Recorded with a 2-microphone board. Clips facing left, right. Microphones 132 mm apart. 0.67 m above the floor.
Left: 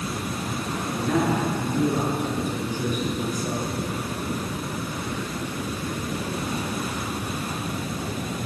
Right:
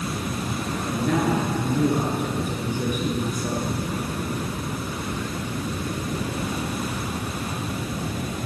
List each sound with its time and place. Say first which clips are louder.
0.9 s a man speaking: right 1 dB; 55° right (ahead or behind), 7.5 m